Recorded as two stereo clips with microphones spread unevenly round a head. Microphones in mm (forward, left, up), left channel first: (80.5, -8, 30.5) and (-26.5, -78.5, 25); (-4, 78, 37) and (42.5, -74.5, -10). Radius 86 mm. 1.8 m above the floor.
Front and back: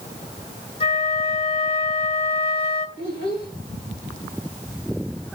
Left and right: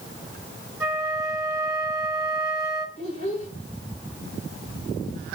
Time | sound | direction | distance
0.8 | a flute | straight ahead | 3 m
3.0 | a child speaking | 65° left | 2.5 m